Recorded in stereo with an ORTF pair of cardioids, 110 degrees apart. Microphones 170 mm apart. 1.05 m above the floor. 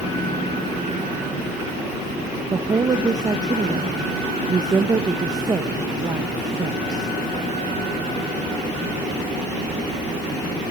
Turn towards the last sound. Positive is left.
turn(degrees=-25)